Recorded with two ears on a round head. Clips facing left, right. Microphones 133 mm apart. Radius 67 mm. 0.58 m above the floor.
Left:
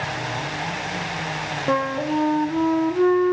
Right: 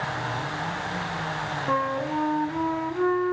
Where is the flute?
40° left (ahead or behind), 0.6 m.